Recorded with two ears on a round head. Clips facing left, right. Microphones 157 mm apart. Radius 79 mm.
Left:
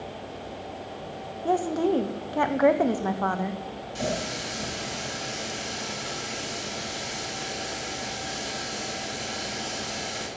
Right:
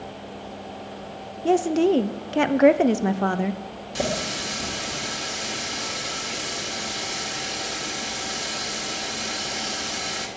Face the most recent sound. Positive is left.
turn(degrees=-65)  # may be behind; listen again after turning